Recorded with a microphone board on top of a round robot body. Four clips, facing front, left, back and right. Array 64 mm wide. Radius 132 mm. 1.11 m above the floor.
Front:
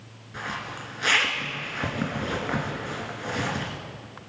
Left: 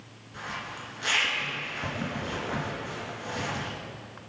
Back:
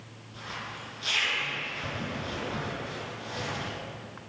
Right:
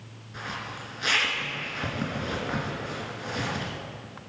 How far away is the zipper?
About 2 m.